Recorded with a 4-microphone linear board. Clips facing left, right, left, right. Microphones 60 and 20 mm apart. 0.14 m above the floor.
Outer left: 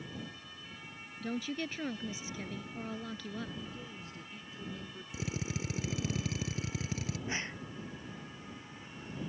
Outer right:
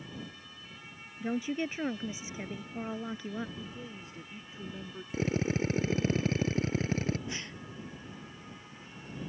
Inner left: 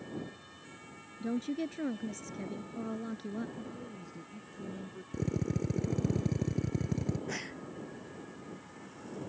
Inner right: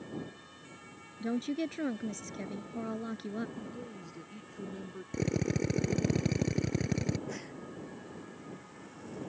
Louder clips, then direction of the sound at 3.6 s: Outer right 1 dB, inner right 1 dB; 25° right (ahead or behind).